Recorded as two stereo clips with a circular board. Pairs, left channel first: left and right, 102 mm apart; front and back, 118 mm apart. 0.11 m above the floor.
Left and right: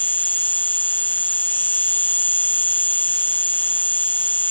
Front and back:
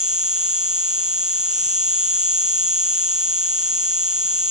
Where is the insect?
165° left.